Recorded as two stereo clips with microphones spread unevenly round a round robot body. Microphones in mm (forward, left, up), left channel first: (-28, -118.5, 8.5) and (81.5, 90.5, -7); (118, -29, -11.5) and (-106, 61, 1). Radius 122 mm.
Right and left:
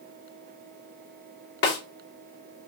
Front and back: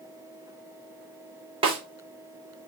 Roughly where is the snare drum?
Behind right.